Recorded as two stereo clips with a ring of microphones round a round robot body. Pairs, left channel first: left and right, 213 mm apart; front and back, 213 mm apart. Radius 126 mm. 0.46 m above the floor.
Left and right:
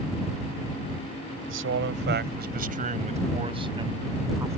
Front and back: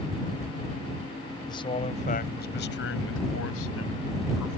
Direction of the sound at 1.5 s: 70° right.